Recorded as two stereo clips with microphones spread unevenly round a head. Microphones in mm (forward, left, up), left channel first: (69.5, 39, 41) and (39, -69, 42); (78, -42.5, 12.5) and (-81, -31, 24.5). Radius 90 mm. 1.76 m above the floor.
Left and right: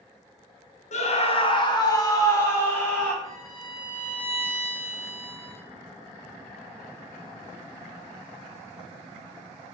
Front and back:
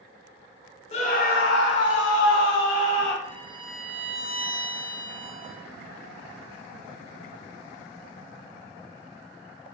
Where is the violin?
125° left, 2.5 m.